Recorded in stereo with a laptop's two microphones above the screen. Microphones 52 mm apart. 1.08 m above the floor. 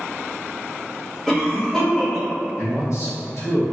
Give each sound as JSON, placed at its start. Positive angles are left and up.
{"t": 1.3, "sound": "a cough", "side_deg": 5, "distance_m": 1.0}
{"t": 2.6, "sound": "a man speaking", "side_deg": 65, "distance_m": 1.4}